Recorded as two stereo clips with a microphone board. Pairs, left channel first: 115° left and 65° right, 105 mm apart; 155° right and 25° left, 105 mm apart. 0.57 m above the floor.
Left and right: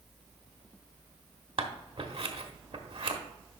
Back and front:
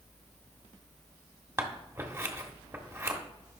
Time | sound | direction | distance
1.6 | scissors | 40° right | 1.0 m